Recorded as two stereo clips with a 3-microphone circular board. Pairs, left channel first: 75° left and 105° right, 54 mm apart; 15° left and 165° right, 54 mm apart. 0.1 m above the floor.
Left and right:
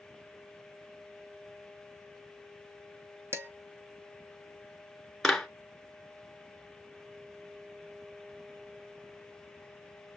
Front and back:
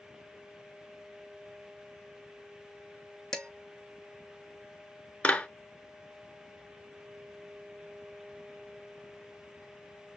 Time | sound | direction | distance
3.3 | dishes clattering | 65° right | 3.5 m
5.2 | a clap | straight ahead | 1.2 m